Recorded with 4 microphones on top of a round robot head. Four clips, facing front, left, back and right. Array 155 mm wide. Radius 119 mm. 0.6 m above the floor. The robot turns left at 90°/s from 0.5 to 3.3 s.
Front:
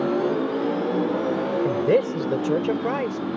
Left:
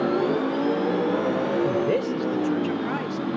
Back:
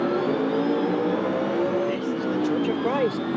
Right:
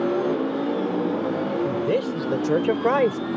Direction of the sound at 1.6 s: 20° left.